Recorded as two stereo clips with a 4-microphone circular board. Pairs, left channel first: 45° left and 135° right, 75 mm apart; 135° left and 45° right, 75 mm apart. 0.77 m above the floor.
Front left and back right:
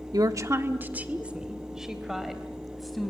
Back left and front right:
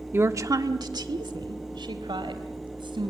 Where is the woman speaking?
105° right, 1.1 m; by 3.1 s 45° right, 4.5 m.